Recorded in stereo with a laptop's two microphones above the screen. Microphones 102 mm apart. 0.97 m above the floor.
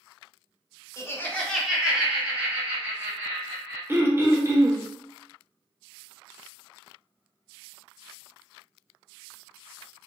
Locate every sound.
1.0 s laughter: 30° left (ahead or behind), 0.5 m; by 3.8 s 25° right (ahead or behind), 1.8 m
3.9 s throat clearing: 25° right (ahead or behind), 0.5 m